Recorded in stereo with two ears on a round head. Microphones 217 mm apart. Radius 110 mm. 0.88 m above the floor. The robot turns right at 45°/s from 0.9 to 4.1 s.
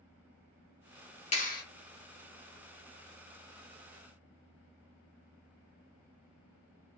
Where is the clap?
30° left (ahead or behind), 1.1 m; by 1.6 s 45° left (ahead or behind), 1.1 m.